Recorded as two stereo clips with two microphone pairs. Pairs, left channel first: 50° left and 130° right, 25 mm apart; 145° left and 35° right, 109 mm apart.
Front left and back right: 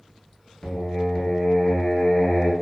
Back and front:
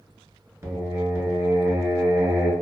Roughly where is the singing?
Ahead.